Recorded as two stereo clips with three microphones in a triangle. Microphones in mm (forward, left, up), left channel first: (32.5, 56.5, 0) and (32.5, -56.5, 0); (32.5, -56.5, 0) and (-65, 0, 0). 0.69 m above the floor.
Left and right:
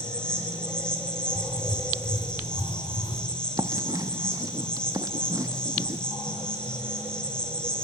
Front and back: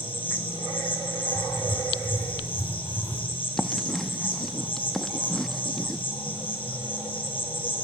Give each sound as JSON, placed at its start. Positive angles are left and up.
{"t": 0.0, "sound": "an insect", "azimuth_deg": 5, "distance_m": 6.0}
{"t": 1.4, "sound": "writing", "azimuth_deg": 40, "distance_m": 3.0}
{"t": 3.6, "sound": "writing", "azimuth_deg": -115, "distance_m": 0.9}